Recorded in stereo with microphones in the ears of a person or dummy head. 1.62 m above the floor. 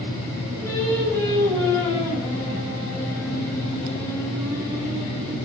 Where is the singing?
10° left (ahead or behind), 3 m.